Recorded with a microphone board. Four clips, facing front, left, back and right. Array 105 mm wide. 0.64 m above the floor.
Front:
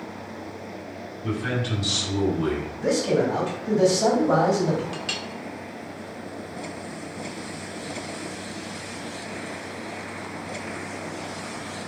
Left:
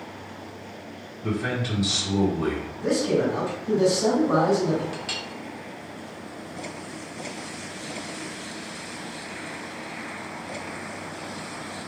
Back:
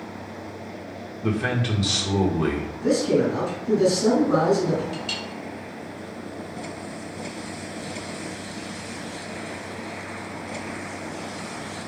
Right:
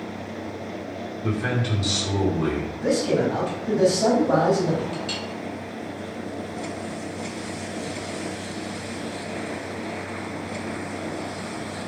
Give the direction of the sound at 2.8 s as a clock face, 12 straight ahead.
1 o'clock.